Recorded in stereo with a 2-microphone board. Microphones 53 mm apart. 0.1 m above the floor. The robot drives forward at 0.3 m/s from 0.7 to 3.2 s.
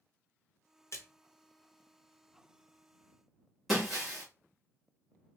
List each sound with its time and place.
0.9 s a splash: 55° left (ahead or behind), 0.9 m
3.7 s breaking glass: centre (ahead or behind), 1.7 m